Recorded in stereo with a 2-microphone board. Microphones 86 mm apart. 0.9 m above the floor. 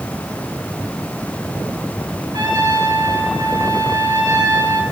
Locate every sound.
2.3 s a trumpet: 55° right (ahead or behind), 5 m